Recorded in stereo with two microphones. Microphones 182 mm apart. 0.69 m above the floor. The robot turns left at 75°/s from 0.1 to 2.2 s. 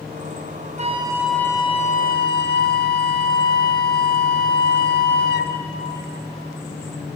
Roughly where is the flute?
Behind right.